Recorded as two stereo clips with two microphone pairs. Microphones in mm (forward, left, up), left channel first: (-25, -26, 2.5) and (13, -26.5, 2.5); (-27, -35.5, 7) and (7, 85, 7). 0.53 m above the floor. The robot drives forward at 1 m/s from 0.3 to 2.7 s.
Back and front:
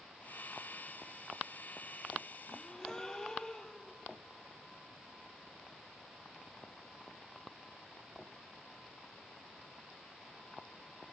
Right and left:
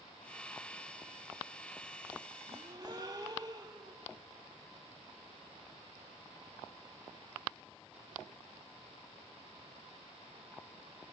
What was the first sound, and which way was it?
A gasp, 105° left.